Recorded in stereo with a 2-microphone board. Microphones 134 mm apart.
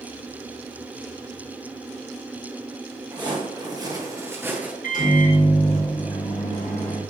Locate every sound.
3.1 s footsteps: 35° right (ahead or behind), 1.7 m; by 4.7 s 10° right (ahead or behind), 1.1 m
4.8 s a microwave: 80° left, 1.6 m